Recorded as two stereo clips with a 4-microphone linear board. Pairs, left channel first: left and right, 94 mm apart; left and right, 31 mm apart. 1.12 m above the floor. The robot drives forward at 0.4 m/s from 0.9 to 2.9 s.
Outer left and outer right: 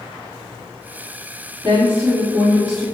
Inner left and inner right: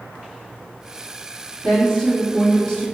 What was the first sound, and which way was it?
A woman speaking, 15° right (ahead or behind).